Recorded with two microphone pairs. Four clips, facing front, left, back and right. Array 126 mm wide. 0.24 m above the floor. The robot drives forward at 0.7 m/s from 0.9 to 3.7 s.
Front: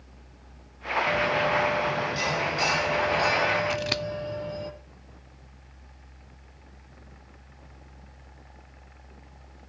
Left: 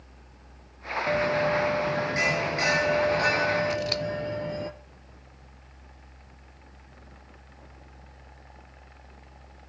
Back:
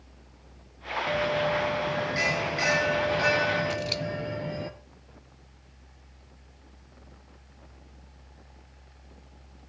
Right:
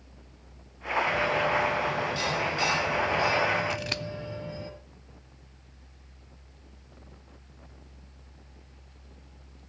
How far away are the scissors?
About 0.8 m.